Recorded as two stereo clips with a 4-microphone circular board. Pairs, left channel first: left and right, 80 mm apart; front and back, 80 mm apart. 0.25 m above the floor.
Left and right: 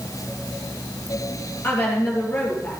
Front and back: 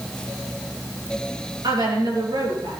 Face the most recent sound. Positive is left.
turn(degrees=155)